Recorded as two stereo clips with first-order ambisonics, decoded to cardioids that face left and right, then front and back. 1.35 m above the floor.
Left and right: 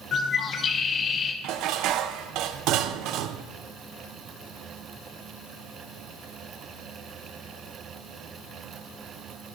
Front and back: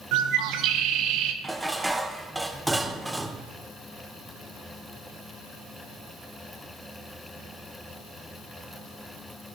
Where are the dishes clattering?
95° right, 0.6 m.